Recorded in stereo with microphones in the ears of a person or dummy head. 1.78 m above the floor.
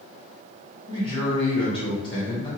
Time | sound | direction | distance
0.9 | a man speaking | 30° left (ahead or behind) | 1.5 m